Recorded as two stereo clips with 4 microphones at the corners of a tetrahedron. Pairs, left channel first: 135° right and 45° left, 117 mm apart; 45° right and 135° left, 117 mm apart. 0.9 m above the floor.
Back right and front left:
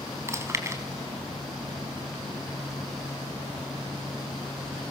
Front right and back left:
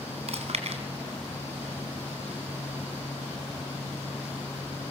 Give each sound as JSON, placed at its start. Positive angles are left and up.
{"t": 0.3, "sound": "chewing", "azimuth_deg": 110, "distance_m": 3.5}